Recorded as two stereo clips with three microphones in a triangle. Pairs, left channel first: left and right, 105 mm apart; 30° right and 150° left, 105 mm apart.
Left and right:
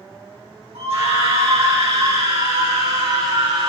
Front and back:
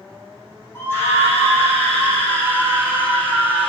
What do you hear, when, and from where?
0.8 s a scream: 100° right, 7 m; by 3.7 s 105° right, 8.5 m